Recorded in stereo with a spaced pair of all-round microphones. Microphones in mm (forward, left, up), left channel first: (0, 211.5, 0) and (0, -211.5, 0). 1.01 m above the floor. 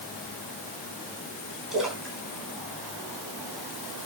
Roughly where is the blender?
No blender in this recording.